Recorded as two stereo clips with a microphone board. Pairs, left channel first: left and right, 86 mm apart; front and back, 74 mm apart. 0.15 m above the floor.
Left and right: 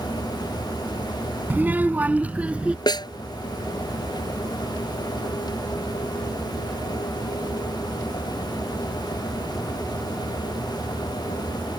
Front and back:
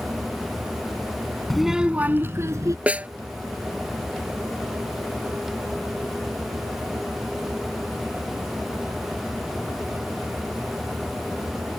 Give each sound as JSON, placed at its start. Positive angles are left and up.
{"t": 1.5, "sound": "a child speaking", "azimuth_deg": -80}
{"t": 2.9, "sound": "a snare drum", "azimuth_deg": 110}